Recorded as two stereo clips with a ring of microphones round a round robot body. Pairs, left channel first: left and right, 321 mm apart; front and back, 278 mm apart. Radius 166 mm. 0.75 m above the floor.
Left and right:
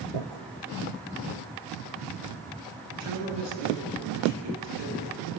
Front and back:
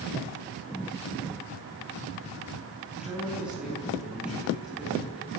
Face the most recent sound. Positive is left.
turn(degrees=-95)